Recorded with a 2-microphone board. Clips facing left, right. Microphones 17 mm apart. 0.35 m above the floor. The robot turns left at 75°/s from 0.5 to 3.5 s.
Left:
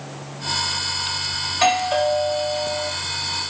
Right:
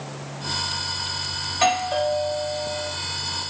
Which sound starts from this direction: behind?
A doorbell, at 1.5 s.